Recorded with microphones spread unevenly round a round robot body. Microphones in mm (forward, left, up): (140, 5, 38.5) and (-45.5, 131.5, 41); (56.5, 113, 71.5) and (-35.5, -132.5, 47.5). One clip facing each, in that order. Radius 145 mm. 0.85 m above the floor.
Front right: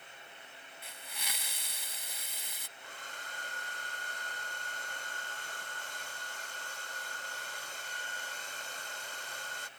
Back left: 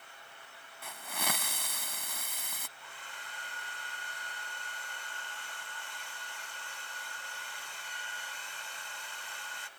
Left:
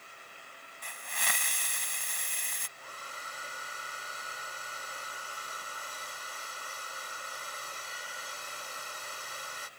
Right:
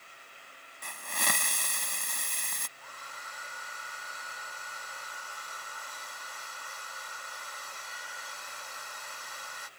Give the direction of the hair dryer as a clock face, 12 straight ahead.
12 o'clock.